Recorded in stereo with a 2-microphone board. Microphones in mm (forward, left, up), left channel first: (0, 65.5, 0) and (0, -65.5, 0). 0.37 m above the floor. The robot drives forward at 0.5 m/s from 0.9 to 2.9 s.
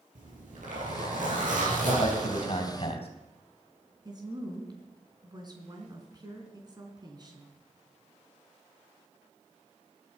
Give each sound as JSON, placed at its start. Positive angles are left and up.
{"t": 0.1, "sound": "a zipper", "side_deg": -75, "distance_m": 6.5}
{"t": 1.8, "sound": "a man speaking", "side_deg": 50, "distance_m": 3.0}
{"t": 4.0, "sound": "a woman speaking", "side_deg": -35, "distance_m": 3.5}